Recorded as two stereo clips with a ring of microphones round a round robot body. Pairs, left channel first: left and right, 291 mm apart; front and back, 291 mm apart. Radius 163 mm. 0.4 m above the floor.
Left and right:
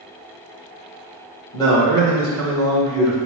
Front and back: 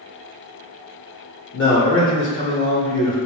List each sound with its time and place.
1.5 s a man speaking: 20° left, 1.4 m